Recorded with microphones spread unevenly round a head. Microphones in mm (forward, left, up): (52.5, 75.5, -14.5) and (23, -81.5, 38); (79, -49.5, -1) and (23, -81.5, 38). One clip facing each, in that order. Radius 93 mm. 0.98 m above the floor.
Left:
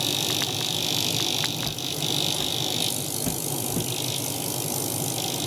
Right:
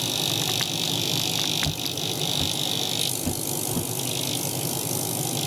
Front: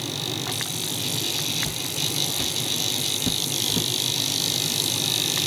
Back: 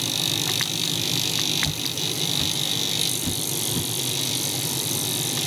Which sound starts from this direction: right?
Footsteps, at 1.6 s.